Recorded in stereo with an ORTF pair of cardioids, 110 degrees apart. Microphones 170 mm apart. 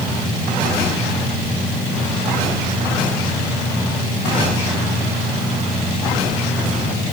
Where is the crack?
I don't hear a crack.